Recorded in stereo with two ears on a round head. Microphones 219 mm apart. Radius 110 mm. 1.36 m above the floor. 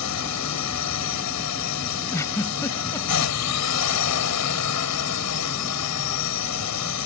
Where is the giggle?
10° left (ahead or behind).